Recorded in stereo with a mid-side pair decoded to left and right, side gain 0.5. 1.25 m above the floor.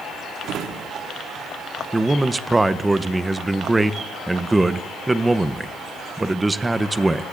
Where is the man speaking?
20° right, 0.8 m.